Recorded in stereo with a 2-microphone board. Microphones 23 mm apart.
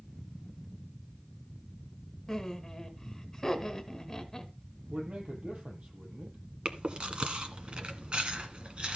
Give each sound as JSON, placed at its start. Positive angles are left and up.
{"t": 2.3, "sound": "laughter", "side_deg": 10, "distance_m": 1.5}
{"t": 4.9, "sound": "a man speaking", "side_deg": -50, "distance_m": 6.0}
{"t": 6.7, "sound": "chewing", "side_deg": -45, "distance_m": 1.6}